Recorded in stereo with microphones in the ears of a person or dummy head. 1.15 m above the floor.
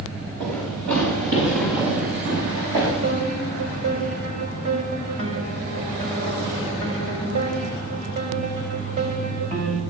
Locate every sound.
0.4 s running footsteps: 55° right (ahead or behind), 6.5 m; by 2.9 s 80° right, 6 m
3.0 s a piano: 75° right (ahead or behind), 5.5 m